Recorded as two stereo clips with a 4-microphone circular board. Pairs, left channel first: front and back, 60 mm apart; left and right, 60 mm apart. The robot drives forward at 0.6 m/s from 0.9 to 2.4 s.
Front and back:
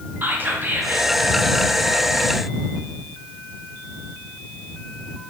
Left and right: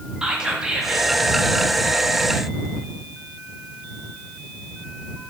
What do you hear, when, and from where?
0.2 s whispering: 155° right, 0.6 m; by 1.1 s 165° right, 0.6 m